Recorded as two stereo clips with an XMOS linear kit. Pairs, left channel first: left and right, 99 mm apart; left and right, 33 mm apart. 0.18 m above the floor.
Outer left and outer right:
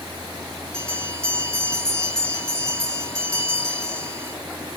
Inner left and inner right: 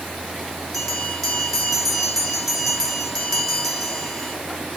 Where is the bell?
5° left (ahead or behind), 7 m.